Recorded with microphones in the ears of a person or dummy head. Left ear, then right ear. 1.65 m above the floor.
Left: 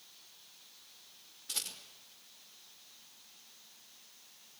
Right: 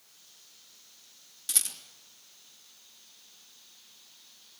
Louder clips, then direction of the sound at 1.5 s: Right 6 dB; 75° right (ahead or behind).